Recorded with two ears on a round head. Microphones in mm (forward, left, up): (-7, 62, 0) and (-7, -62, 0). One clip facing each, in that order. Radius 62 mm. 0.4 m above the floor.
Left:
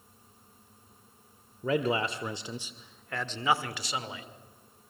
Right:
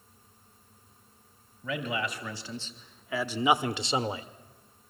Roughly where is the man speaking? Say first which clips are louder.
Left 5 dB; left.